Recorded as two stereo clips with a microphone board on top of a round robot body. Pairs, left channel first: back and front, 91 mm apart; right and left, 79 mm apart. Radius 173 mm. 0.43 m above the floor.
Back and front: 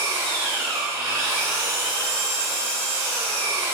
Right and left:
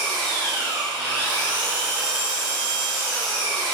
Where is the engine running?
65° left, 3 m.